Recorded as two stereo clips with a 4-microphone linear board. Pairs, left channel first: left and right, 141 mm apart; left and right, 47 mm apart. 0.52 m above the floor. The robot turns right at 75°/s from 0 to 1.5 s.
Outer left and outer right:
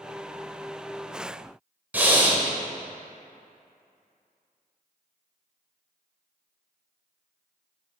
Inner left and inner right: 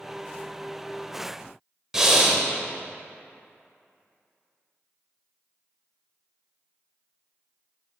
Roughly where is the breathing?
Centre.